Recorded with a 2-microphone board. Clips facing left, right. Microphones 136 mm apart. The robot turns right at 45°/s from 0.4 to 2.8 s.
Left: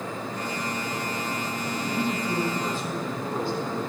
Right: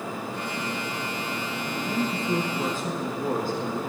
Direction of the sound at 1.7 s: 175° left.